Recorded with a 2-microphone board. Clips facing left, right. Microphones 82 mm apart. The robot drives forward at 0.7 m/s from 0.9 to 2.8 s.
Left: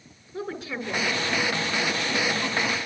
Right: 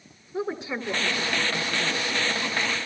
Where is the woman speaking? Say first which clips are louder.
Right 3 dB; 25° right (ahead or behind), 2.5 m; by 2.0 s 20° right (ahead or behind), 3 m.